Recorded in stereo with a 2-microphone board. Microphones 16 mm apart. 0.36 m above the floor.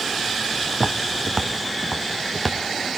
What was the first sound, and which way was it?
Footsteps, 15° right (ahead or behind).